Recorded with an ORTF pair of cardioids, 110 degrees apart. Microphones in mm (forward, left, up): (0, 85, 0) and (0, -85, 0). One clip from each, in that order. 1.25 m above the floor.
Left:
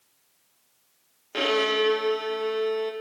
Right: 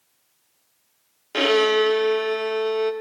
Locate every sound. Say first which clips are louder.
1.3 s a violin: right 5 dB; 25° right, 0.7 m